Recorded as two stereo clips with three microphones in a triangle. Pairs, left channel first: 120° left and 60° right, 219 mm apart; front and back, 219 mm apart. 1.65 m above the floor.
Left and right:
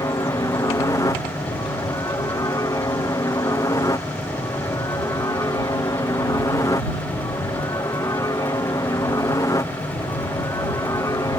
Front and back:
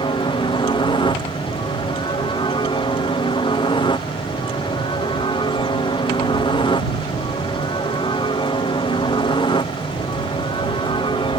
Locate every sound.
0.0 s a helicopter: 55° left